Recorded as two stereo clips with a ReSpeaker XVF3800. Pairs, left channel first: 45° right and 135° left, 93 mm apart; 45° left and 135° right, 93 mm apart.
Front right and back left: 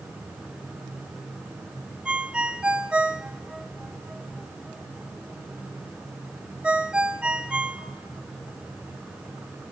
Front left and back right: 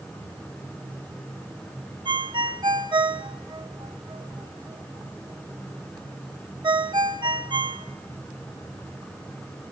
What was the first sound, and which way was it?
A ringtone, 150° right.